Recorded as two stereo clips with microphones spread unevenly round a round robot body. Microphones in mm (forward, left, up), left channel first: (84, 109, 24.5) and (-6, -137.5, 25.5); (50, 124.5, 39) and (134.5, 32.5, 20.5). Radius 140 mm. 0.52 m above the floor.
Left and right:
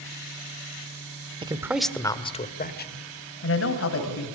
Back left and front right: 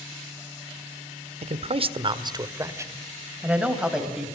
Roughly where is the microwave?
No microwave in this recording.